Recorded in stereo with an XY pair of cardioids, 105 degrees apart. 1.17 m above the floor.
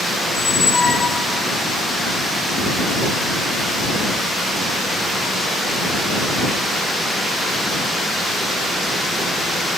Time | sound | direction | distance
0.3 | a squeak | 35° left | ?